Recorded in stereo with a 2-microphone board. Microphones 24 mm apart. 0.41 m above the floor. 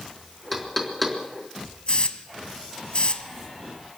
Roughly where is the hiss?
Left.